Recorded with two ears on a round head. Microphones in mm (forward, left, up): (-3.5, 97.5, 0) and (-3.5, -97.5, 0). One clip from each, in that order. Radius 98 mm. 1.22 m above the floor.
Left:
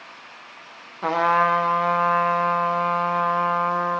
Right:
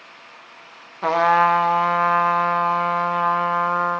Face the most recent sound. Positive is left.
turn(degrees=-15)  # may be behind; listen again after turning